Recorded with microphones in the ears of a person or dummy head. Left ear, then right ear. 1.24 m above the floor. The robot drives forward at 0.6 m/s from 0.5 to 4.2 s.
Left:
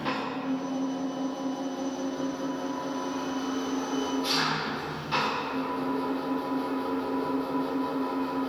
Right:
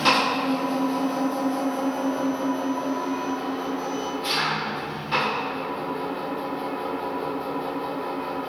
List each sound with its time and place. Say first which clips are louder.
0.0 s an engine running: right 11 dB; 50° right (ahead or behind), 0.9 m; by 8.5 s 20° right (ahead or behind), 2 m